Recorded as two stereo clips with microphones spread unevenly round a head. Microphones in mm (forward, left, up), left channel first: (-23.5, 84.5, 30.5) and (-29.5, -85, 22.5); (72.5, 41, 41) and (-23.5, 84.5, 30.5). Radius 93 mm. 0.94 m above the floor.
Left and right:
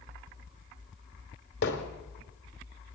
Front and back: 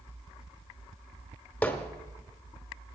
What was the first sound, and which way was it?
Hammering, 55° left.